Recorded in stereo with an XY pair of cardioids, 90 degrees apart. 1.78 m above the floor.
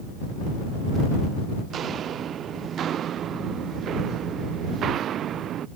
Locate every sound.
1.7 s footsteps: 65° right; by 5.7 s 75° right